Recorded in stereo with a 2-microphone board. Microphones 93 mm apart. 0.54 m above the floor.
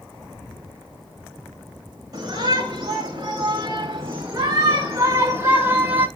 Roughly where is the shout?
Right.